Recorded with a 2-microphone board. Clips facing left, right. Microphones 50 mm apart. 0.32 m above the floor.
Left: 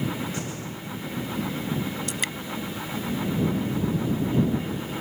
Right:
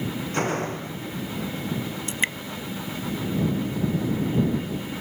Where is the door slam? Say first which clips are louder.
Right 8 dB; 50° right (ahead or behind).